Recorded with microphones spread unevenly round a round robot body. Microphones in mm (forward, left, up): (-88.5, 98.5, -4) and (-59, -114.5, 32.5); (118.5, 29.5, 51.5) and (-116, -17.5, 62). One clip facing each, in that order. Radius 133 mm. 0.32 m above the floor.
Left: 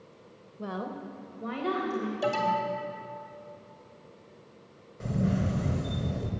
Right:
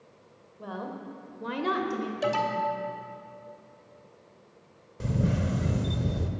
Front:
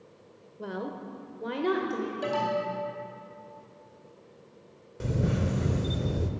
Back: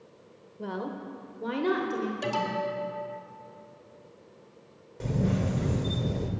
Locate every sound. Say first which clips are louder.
0.6 s a woman speaking: left 2 dB, back 1 dB; 95° left, 1.2 m; by 2.1 s 80° right, 1.7 m
2.2 s an alarm: even, front 1 dB; 145° right, 2 m
5.0 s a camera shutter: even, back 1 dB; 50° right, 1.1 m